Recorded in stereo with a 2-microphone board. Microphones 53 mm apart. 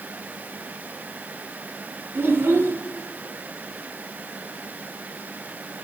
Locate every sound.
2.1 s a child speaking: 45° right (ahead or behind), 1.0 m